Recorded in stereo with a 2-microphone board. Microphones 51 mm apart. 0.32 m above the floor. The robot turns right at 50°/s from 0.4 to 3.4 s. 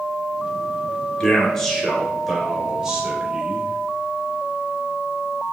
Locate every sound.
1.2 s a man speaking: 15° left (ahead or behind), 0.9 m; by 3.8 s 20° right (ahead or behind), 0.9 m